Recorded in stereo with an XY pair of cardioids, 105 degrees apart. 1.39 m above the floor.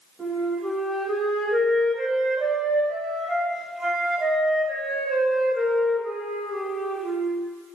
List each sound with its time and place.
0.2 s a flute: 25° right, 1.0 m